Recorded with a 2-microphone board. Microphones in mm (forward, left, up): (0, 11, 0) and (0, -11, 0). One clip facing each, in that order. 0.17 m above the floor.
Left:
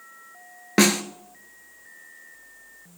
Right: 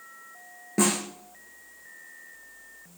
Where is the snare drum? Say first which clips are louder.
Left 6 dB; 70° left (ahead or behind), 1.1 m.